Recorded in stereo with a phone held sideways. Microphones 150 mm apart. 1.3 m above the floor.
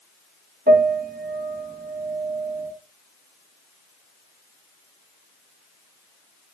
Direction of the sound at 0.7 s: 80° right.